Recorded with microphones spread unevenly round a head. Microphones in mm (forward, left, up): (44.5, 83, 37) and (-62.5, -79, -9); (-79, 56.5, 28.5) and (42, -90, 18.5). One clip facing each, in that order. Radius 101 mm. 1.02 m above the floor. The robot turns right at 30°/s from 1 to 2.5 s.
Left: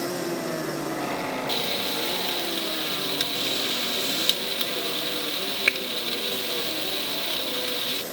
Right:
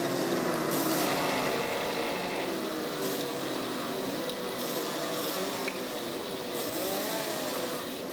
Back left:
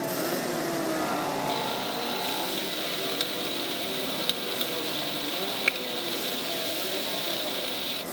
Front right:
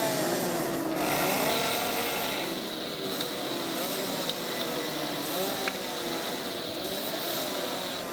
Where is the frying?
40° left, 0.9 m; by 8.0 s 70° left, 0.9 m.